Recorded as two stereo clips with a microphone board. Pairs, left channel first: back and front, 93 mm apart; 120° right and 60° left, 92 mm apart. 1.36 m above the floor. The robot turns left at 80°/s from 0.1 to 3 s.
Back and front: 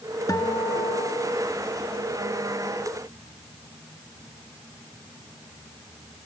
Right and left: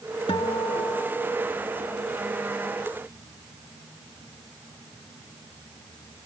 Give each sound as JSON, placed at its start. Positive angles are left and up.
{"t": 0.3, "sound": "a guitar", "azimuth_deg": -130}